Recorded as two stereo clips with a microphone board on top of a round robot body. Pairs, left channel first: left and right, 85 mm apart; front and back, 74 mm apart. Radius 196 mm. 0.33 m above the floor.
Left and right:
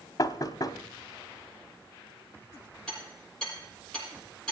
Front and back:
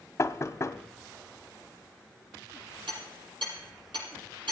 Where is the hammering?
170° left, 10 m.